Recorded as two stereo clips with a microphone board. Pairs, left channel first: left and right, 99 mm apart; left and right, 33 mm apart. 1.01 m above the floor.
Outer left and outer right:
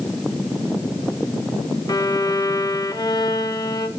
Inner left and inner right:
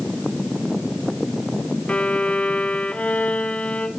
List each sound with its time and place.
1.9 s a violin: 45° left (ahead or behind), 1.2 m